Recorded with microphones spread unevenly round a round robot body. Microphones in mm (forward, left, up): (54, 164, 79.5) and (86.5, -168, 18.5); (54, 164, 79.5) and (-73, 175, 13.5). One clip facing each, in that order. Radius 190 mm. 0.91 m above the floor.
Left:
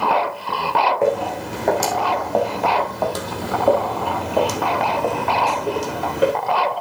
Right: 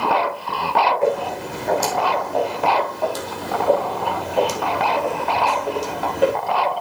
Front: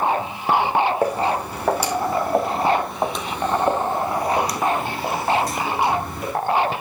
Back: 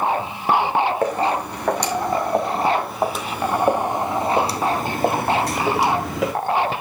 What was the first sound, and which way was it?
Footsteps, 70° left.